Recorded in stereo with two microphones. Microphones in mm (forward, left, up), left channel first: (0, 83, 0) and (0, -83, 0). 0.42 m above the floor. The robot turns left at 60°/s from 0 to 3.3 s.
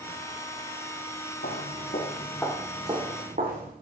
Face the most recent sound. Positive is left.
turn(degrees=-60)  # may be behind; listen again after turning